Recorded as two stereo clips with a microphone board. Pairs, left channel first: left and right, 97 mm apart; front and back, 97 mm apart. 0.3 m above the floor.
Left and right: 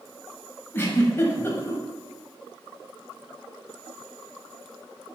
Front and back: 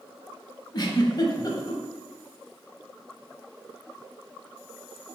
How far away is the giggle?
About 0.8 m.